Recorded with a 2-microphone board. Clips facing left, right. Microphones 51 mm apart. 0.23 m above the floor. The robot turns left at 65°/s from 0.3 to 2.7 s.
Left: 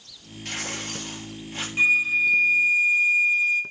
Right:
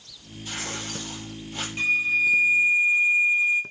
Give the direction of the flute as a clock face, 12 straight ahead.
11 o'clock.